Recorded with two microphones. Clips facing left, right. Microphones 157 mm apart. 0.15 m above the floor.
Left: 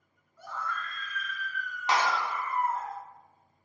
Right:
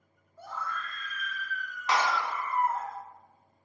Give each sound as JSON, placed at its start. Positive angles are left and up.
{"t": 0.4, "sound": "a scream", "side_deg": -30, "distance_m": 1.9}
{"t": 1.9, "sound": "a clap", "side_deg": 25, "distance_m": 1.2}